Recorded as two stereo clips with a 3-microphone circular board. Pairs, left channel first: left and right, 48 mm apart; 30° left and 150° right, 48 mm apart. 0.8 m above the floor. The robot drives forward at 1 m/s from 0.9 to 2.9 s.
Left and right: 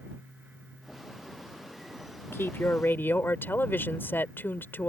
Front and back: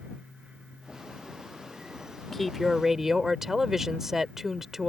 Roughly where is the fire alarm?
No fire alarm in this recording.